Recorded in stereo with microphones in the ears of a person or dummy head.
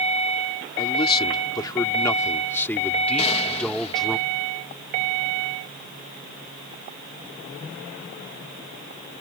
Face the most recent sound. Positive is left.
turn(degrees=30)  # may be behind; listen again after turning